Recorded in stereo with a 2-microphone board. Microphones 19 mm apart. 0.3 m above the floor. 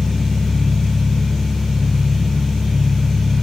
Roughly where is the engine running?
Right.